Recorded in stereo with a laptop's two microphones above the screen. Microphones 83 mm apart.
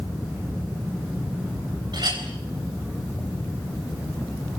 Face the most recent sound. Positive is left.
turn(degrees=-60)  # may be behind; listen again after turning